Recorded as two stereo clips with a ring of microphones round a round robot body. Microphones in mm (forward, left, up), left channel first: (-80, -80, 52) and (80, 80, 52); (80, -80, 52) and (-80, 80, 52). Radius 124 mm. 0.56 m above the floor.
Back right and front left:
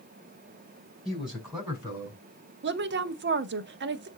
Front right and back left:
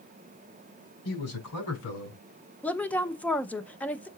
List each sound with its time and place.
1.1 s a man speaking: 45° right, 5 m; by 2.2 s 40° right, 6 m
2.6 s a woman speaking: 35° left, 0.9 m